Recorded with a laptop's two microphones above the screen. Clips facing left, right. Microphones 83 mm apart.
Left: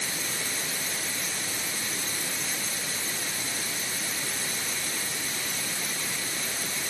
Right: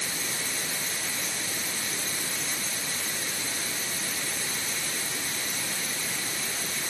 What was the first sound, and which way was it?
Only background noise.